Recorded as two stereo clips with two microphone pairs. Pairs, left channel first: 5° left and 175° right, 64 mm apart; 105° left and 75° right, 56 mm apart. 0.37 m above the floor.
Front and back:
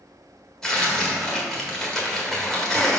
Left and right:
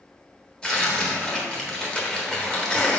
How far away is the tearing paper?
About 1.4 m.